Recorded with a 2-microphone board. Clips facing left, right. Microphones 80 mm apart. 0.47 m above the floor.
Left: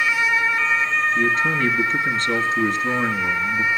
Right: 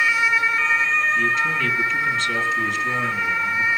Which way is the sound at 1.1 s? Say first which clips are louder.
Left 1 dB; 40° left (ahead or behind).